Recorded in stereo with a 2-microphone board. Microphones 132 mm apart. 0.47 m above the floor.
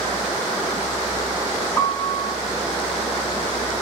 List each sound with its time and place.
1.8 s a piano: 25° left (ahead or behind), 4.5 m